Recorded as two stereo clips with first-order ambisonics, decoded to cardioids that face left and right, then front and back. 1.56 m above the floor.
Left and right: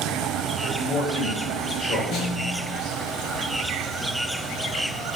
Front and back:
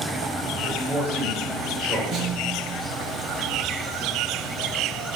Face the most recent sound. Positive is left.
turn(degrees=130)